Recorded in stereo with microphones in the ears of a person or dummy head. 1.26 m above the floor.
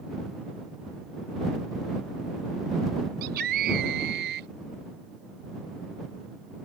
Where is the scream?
55° right (ahead or behind); by 4.5 s 60° right (ahead or behind).